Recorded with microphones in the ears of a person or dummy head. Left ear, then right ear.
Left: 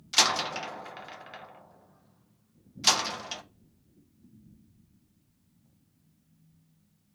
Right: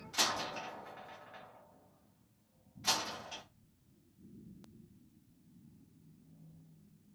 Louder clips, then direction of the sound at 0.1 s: Left 10 dB; 80° left.